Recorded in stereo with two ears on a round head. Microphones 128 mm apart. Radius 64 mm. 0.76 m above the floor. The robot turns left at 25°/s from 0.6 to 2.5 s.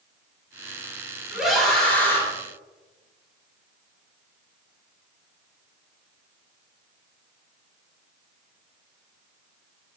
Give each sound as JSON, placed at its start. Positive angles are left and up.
{"t": 1.3, "sound": "a scream", "side_deg": -5, "distance_m": 4.0}